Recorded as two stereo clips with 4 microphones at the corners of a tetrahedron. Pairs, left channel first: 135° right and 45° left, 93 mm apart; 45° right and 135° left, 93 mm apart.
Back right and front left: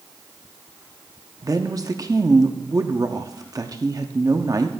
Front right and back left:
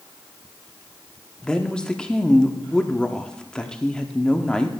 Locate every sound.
1.4 s a woman speaking: 30° left, 0.7 m